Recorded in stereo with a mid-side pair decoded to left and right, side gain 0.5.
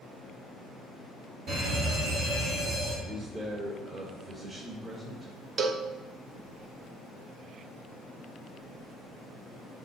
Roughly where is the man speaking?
Ahead right.